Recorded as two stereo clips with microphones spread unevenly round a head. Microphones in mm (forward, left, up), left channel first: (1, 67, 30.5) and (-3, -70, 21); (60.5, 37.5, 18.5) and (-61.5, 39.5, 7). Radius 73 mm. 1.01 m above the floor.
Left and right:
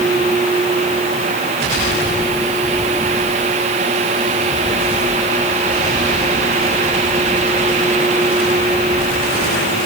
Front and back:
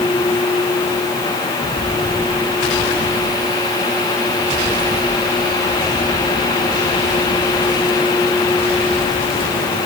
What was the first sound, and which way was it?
Only background noise.